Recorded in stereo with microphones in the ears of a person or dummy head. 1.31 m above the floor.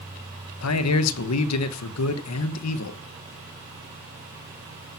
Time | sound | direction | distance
0.6 | a man speaking | 85° left | 1.2 m